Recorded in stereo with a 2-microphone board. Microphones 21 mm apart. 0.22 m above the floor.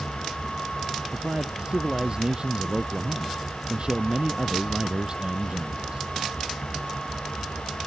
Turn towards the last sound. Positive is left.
turn(degrees=-45)  # may be behind; listen again after turning